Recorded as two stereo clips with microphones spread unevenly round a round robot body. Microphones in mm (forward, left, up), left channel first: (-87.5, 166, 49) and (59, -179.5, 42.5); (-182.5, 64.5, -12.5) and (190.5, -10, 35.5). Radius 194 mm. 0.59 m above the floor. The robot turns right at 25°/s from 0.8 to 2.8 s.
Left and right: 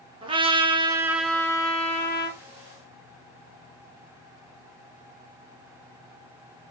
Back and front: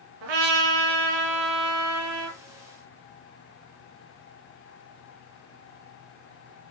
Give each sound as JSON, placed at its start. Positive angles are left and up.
{"t": 0.2, "sound": "a trumpet", "azimuth_deg": 10, "distance_m": 2.5}